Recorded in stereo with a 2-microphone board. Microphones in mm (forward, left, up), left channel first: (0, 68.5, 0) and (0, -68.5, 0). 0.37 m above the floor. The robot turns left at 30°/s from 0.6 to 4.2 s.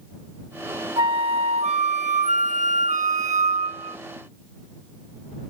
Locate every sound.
1.0 s a flute: 40° right; by 4.0 s 130° right